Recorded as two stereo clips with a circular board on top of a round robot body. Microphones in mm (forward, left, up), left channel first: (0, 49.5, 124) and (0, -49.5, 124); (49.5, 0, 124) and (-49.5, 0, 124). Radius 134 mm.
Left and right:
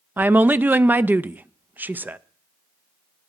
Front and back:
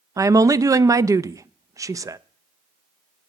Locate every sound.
0.2 s a woman speaking: 150° right, 0.5 m